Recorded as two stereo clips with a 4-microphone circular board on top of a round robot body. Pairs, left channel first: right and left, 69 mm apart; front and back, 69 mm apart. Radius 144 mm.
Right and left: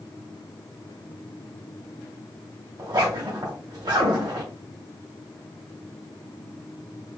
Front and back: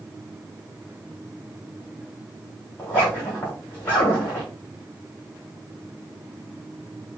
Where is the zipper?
70° left, 2 m.